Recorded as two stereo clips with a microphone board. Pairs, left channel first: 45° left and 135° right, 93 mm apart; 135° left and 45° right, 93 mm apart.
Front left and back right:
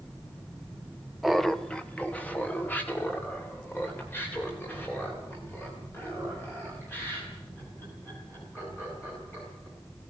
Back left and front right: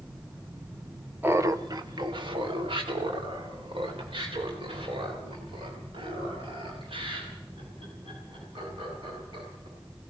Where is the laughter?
50° right, 0.7 m; by 9.7 s 20° right, 8.5 m.